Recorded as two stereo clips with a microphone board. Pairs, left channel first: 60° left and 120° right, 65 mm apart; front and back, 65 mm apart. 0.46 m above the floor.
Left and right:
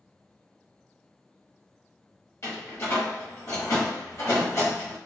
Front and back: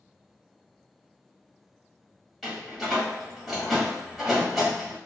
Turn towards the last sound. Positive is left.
turn(degrees=95)